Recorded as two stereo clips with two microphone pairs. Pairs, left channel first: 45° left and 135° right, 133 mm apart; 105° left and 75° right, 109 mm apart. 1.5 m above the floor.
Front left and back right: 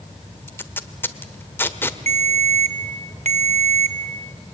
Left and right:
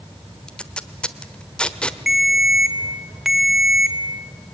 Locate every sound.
0.5 s tape being pulled: 45° left, 1.2 m
2.1 s a ringtone: 160° right, 2.0 m